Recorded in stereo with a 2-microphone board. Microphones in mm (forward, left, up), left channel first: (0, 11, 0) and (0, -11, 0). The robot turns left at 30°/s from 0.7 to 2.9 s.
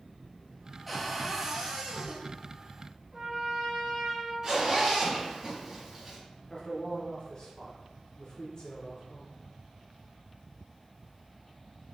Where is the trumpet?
35° right (ahead or behind), 1.1 m.